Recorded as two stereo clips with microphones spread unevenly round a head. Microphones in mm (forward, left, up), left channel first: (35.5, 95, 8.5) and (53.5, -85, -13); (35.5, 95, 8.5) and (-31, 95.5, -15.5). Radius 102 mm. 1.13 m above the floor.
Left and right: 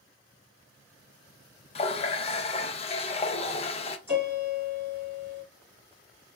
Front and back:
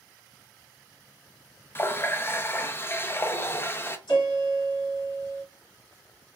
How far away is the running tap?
About 0.5 m.